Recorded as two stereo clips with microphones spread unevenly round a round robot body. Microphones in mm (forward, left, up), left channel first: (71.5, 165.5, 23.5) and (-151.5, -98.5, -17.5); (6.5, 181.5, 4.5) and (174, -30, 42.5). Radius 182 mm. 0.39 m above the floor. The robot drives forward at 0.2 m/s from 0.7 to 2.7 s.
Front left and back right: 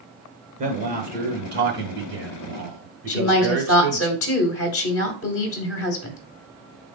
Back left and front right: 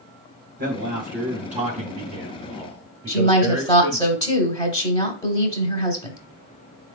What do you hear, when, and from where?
0.6 s a man speaking: 95° right, 0.9 m; by 4.1 s 130° right, 1.0 m
3.1 s a woman speaking: 80° left, 1.1 m